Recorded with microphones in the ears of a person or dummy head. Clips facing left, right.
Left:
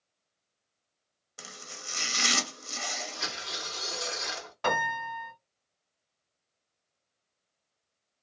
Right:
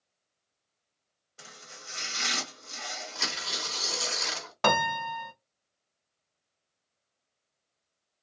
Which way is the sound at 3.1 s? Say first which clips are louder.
Right 1 dB; 55° right (ahead or behind).